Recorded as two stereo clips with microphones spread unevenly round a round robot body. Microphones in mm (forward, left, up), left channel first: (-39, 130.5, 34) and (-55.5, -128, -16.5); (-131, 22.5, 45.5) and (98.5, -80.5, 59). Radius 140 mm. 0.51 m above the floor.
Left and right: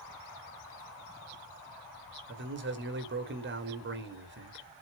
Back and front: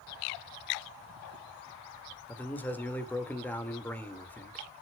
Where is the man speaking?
125° right, 2 m.